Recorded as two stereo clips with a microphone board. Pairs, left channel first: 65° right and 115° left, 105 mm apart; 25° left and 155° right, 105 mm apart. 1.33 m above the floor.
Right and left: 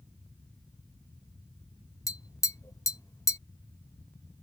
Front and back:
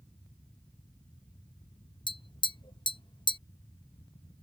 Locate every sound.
2.1 s tapping: 15° right